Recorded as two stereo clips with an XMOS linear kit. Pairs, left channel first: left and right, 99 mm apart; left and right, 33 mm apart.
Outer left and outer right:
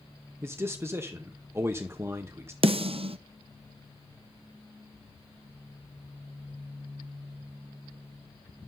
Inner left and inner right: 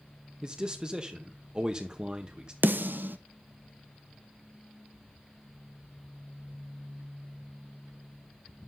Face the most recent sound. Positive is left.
turn(degrees=-70)  # may be behind; listen again after turning